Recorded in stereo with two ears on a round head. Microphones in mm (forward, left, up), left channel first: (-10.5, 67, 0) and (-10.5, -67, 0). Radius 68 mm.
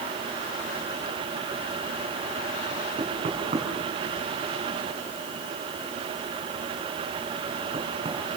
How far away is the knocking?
About 6.5 m.